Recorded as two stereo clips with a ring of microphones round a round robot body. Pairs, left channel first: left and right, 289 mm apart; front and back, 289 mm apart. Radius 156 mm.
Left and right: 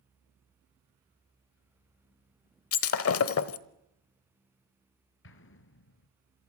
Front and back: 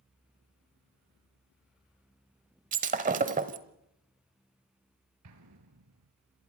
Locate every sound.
2.7 s breaking glass: 120° left, 1.1 m
5.2 s an explosion: 140° left, 1.9 m